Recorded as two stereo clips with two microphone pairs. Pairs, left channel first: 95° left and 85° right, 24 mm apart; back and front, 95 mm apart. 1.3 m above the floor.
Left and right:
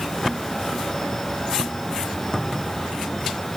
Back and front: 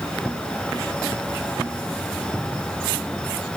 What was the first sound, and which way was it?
Only background noise.